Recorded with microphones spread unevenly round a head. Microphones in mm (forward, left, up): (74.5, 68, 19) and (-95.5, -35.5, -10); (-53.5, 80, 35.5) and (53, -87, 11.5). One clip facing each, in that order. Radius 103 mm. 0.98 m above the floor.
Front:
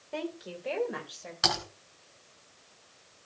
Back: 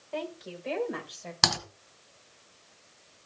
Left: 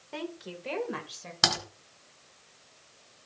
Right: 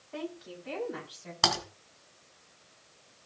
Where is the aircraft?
I don't hear an aircraft.